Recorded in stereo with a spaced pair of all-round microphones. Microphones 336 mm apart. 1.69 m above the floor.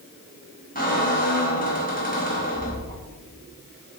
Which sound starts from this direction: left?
A squeak, at 0.8 s.